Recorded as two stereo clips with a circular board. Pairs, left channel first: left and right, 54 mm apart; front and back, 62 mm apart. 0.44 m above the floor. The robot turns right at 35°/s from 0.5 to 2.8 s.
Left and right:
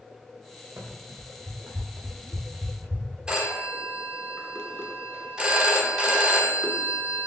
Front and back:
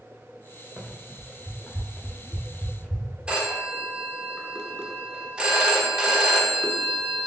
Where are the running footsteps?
100° right, 1.6 m; by 3.1 s 75° right, 1.9 m.